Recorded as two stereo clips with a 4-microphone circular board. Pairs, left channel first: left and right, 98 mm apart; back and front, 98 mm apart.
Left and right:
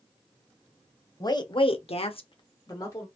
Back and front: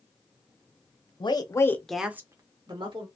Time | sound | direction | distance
1.2 | a woman speaking | 140° left | 0.8 m